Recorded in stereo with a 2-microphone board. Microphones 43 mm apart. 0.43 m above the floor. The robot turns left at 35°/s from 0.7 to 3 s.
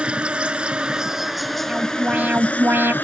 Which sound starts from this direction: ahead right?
An alarm, at 1.7 s.